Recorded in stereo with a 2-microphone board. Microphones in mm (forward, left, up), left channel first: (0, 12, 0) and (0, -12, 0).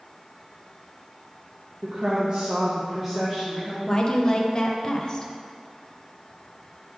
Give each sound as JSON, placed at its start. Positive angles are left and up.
{"t": 1.8, "sound": "a woman speaking", "side_deg": -65, "distance_m": 1.0}
{"t": 3.9, "sound": "a woman speaking", "side_deg": 35, "distance_m": 0.7}